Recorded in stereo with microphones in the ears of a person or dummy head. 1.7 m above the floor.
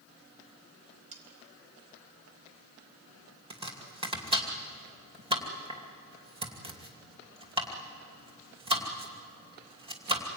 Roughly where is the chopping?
Right.